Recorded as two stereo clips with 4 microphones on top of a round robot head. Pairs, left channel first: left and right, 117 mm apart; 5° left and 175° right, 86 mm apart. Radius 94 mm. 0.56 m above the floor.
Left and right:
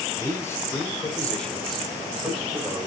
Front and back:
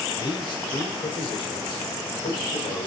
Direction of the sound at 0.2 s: 30° left.